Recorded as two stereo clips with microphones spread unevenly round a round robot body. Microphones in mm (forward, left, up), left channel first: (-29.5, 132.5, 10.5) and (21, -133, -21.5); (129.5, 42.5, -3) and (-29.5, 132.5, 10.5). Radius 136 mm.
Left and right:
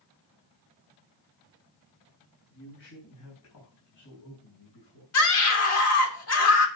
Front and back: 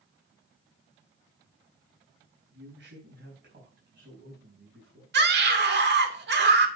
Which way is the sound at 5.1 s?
130° left.